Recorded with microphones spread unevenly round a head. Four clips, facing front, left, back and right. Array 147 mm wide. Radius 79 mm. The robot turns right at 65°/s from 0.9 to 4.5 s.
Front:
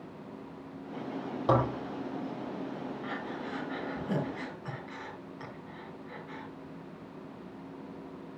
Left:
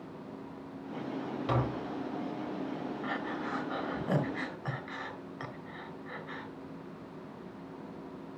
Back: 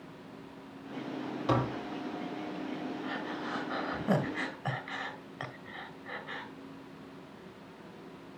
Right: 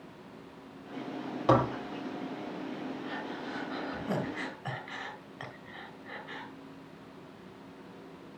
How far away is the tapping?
About 1.5 m.